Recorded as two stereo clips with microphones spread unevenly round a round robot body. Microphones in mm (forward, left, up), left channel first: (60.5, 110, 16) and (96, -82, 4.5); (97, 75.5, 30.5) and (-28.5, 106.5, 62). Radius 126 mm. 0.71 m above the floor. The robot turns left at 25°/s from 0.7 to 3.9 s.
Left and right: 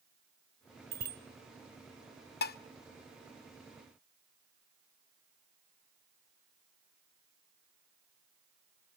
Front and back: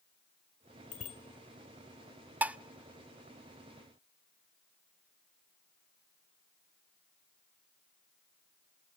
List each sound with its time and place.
0.9 s a bicycle bell: 40° right, 2 m; by 1.2 s 50° right, 2 m
2.4 s dishes clattering: 80° left, 0.6 m; by 2.6 s 75° left, 0.6 m